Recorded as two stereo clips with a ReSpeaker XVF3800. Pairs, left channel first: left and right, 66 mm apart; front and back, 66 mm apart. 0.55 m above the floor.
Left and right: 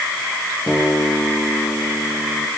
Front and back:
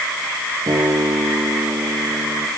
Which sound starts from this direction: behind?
A guitar, at 0.7 s.